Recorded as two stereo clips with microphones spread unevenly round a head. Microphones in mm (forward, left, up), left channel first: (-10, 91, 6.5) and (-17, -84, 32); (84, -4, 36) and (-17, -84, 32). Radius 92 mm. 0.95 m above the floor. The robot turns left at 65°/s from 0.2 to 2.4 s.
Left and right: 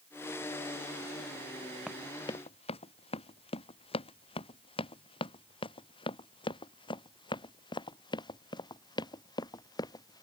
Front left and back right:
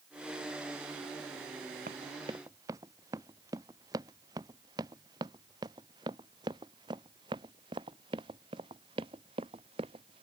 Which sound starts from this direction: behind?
Running footsteps, at 1.9 s.